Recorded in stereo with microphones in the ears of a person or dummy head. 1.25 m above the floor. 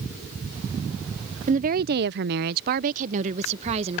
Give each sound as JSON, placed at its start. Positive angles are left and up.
{"t": 1.5, "sound": "a woman speaking", "side_deg": -35}